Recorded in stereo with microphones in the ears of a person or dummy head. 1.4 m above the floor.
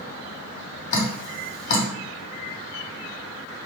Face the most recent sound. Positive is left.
turn(degrees=45)  # may be behind; listen again after turning